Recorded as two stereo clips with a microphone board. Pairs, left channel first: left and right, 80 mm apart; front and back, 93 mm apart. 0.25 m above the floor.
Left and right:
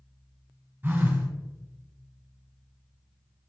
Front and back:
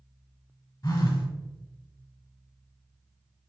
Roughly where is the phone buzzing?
Ahead right.